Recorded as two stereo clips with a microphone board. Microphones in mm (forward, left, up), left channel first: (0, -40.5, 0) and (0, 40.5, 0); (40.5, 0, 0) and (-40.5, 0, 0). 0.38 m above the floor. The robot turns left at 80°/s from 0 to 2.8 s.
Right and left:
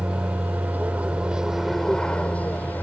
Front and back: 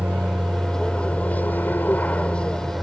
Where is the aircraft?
135° left; by 2.8 s 90° right.